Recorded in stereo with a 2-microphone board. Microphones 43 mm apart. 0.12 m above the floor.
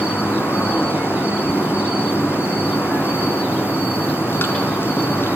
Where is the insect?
65° left (ahead or behind), 5.5 m.